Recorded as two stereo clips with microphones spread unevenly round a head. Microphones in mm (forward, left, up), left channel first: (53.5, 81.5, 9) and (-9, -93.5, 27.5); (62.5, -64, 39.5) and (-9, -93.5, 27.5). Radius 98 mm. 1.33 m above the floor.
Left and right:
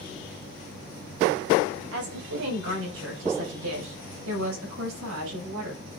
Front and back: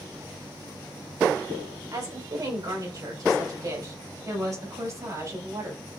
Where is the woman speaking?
120° right, 5 m; by 5.8 s 110° right, 7.5 m.